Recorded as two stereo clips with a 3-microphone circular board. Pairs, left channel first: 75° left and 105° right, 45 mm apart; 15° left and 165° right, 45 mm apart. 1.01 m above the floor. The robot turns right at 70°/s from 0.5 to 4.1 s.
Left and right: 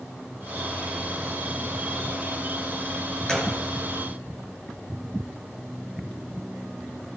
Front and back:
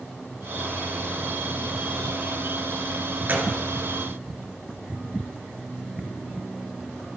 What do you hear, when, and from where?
3.3 s a gunshot: 150° left, 3 m; by 3.6 s 170° left, 3 m